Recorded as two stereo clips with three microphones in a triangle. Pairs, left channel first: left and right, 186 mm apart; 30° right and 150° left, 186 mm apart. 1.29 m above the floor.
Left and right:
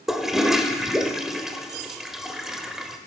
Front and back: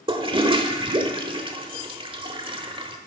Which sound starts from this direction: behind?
A toilet flushing, at 0.1 s.